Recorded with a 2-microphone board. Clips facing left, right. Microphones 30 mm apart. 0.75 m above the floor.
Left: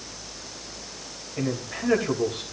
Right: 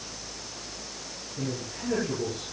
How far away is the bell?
I don't hear a bell.